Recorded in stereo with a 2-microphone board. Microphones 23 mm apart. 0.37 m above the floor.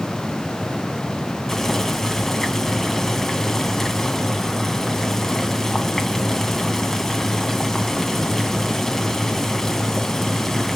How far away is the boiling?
About 2.5 m.